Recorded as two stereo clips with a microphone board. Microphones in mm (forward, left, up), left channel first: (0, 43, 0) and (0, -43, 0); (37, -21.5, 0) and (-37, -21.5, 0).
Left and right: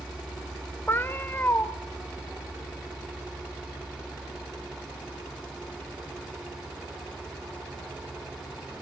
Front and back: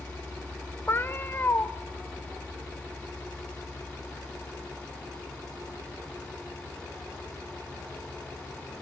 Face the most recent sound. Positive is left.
turn(degrees=40)